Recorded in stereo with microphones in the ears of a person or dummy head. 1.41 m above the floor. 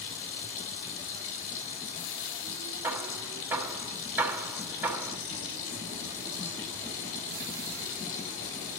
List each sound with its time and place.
0.0 s running water: 75° left (ahead or behind), 3.5 m
2.8 s hammering: 15° right (ahead or behind), 5 m